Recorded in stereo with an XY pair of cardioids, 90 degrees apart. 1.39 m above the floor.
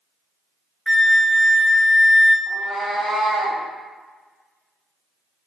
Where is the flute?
10° left, 0.7 m.